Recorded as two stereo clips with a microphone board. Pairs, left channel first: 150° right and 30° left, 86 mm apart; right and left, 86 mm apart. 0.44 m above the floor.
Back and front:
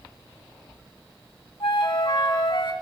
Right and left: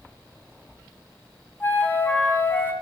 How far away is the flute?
About 1.8 m.